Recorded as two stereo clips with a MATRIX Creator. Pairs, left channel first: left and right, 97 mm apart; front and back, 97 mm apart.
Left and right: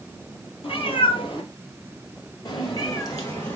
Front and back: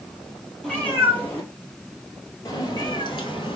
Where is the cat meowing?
80° left, 1.9 m; by 3.6 s 25° left, 1.5 m.